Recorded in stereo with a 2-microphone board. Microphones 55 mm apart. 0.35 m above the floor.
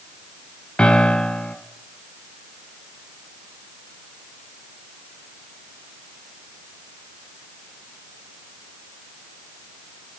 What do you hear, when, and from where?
0.8 s a piano: 20° left (ahead or behind), 0.6 m